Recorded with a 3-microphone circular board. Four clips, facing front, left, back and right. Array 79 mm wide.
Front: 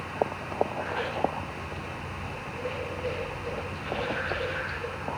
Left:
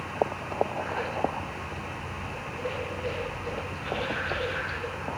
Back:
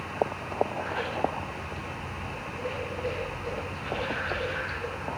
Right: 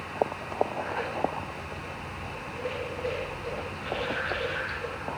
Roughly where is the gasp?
No gasp in this recording.